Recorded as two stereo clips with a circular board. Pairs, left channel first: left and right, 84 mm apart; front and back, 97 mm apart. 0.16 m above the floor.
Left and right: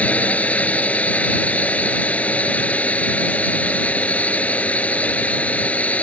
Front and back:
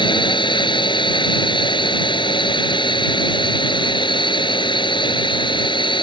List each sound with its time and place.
0.0 s a drone: 20° left